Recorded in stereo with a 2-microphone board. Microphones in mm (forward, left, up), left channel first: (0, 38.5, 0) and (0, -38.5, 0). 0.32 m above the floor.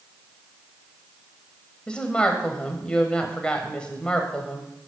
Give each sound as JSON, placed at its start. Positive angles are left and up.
{"t": 1.9, "sound": "a woman speaking", "side_deg": 15, "distance_m": 1.2}